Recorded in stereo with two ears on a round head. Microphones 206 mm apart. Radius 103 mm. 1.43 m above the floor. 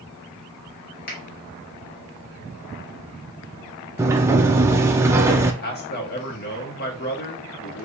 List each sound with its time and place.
1.1 s a finger snap: 40° left (ahead or behind), 2 m
4.0 s a sliding door: 10° right (ahead or behind), 0.6 m
5.6 s a man speaking: 45° left (ahead or behind), 1.5 m